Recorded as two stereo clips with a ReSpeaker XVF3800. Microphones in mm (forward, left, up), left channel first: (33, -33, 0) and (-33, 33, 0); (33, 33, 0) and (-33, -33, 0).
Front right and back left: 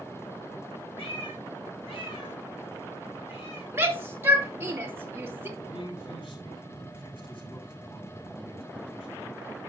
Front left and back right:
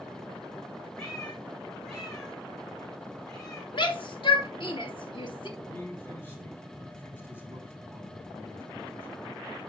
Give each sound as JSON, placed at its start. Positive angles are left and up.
{"t": 1.0, "sound": "a cat meowing", "azimuth_deg": -40, "distance_m": 5.5}
{"t": 3.7, "sound": "a shout", "azimuth_deg": 70, "distance_m": 2.5}
{"t": 5.6, "sound": "a man speaking", "azimuth_deg": -20, "distance_m": 6.0}